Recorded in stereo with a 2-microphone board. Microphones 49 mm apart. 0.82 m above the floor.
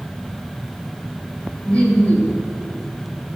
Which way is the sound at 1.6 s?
25° left (ahead or behind).